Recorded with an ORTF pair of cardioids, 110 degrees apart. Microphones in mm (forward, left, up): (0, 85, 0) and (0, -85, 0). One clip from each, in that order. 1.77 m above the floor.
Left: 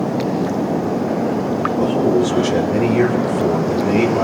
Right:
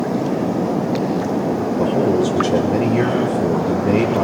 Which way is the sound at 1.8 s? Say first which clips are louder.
Left 1 dB; 10° right.